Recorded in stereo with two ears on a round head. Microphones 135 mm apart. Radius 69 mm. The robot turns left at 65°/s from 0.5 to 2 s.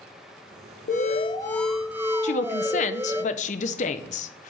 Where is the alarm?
55° left, 0.9 m; by 3.2 s 15° right, 0.9 m.